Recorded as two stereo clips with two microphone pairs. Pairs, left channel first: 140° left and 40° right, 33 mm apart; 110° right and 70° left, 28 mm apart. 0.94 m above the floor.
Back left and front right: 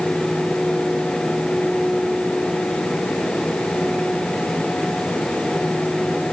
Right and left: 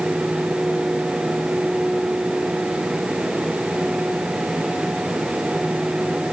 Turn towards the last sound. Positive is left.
No sound to turn to.